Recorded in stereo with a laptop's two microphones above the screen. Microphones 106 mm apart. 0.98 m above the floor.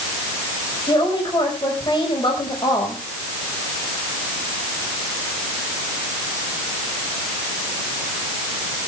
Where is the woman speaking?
50° left (ahead or behind), 5.5 m.